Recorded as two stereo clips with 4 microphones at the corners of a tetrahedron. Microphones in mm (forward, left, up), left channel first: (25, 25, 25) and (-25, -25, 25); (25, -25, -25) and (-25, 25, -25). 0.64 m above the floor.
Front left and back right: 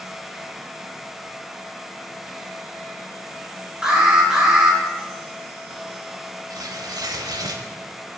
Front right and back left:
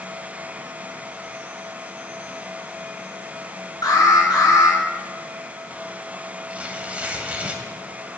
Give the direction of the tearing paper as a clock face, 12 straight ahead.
5 o'clock.